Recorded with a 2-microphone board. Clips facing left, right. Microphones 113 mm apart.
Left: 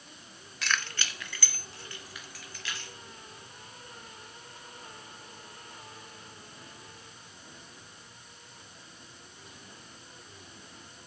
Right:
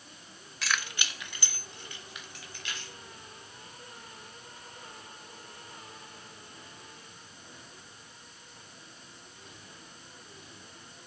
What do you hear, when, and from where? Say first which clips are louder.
0.6 s keys jangling: left 1 dB; centre (ahead or behind), 0.5 m; by 2.9 s 25° right (ahead or behind), 4 m